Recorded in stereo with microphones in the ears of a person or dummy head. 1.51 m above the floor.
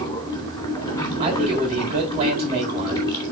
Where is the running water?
15° left (ahead or behind), 3 m.